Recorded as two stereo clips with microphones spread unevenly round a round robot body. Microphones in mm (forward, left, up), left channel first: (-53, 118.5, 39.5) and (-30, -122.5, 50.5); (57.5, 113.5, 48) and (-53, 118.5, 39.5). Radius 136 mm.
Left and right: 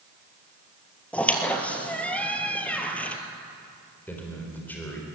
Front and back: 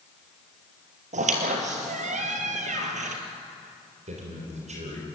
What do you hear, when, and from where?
1.1 s a squeak: straight behind, 2 m
4.1 s a man speaking: straight behind, 4 m